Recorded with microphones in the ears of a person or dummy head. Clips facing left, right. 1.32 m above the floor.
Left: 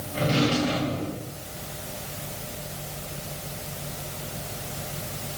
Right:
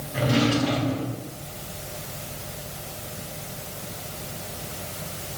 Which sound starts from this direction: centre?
A drawer, at 0.1 s.